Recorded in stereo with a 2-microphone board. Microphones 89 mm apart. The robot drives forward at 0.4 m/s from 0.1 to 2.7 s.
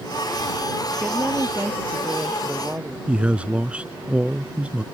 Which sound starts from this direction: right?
A woman speaking, at 1.0 s.